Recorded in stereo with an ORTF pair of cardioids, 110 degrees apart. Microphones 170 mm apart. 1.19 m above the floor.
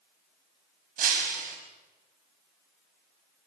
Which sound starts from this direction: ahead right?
Breaking glass, at 1.0 s.